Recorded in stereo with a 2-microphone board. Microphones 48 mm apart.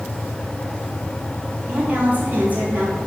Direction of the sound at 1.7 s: 35° right (ahead or behind).